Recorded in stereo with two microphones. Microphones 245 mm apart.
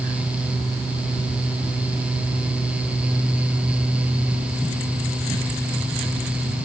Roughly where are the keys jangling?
No keys jangling in this recording.